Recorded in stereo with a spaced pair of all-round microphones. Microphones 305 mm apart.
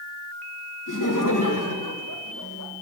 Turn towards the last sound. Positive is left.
turn(degrees=75)  # may be behind; listen again after turning